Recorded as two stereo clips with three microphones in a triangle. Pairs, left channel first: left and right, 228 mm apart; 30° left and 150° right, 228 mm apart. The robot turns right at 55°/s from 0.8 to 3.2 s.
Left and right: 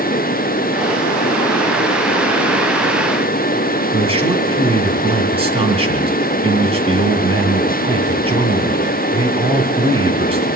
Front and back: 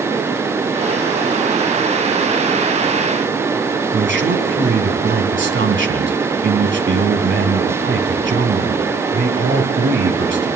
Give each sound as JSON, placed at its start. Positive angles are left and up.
{"t": 3.9, "sound": "a man speaking", "azimuth_deg": -150, "distance_m": 2.5}